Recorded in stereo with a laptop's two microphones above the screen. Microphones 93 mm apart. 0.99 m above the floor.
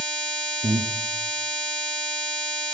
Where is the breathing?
70° right (ahead or behind), 1.3 m.